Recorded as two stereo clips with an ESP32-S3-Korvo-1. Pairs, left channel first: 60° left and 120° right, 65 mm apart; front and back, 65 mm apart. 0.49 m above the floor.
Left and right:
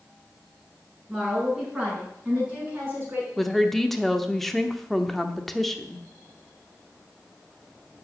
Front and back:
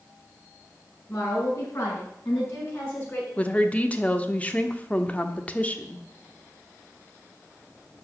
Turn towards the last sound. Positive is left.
turn(degrees=-20)